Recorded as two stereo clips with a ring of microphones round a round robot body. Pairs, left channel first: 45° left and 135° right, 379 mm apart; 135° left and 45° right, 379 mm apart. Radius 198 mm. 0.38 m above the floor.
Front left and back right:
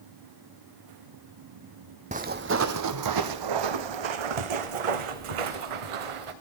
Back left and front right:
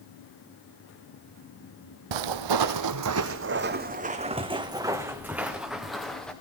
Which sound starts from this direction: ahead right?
Footsteps, at 2.1 s.